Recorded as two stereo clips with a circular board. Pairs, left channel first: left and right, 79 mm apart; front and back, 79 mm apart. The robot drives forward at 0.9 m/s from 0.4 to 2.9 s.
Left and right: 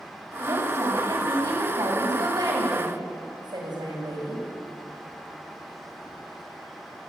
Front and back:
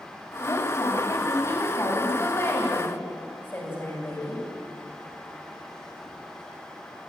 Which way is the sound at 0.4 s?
50° right.